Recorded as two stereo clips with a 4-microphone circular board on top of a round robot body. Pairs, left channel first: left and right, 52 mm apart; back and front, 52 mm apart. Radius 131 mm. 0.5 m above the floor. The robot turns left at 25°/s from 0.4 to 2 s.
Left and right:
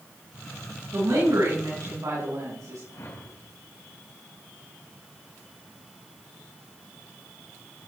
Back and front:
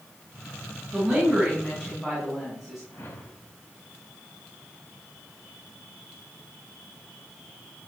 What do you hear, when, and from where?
0.9 s a woman speaking: 60° right, 6 m; by 2.8 s 90° right, 6 m
2.9 s a whoosh: 130° left, 4 m